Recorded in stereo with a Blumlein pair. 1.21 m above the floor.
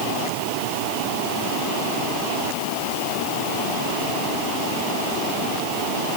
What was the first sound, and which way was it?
Only background noise.